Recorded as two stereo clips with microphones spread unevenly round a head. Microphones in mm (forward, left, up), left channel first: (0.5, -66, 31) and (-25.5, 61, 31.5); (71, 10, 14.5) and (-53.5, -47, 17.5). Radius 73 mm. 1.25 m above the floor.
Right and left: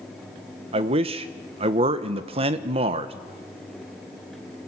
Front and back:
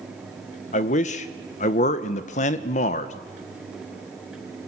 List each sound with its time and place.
0.7 s a man speaking: 60° left, 1.3 m